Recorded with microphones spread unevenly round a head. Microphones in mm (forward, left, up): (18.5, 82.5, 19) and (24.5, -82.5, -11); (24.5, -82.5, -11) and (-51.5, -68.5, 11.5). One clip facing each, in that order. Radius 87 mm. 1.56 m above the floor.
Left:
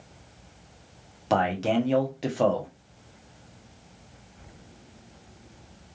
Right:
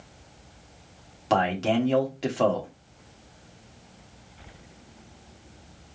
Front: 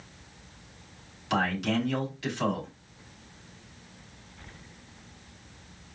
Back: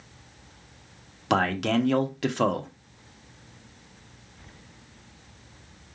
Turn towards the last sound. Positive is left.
turn(degrees=180)